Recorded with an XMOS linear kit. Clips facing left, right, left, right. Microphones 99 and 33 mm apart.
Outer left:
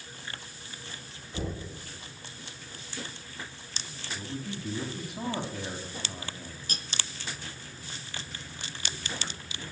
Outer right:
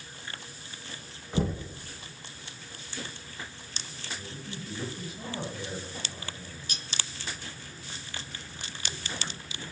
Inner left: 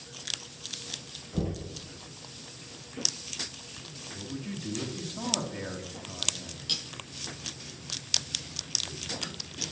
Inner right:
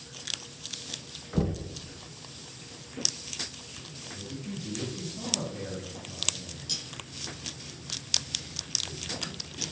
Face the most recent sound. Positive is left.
turn(degrees=45)  # may be behind; listen again after turning